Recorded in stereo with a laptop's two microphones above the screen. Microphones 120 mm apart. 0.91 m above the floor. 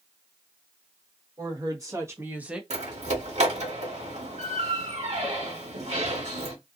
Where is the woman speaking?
35° right (ahead or behind), 1.5 m; by 2.6 s 5° right (ahead or behind), 0.7 m.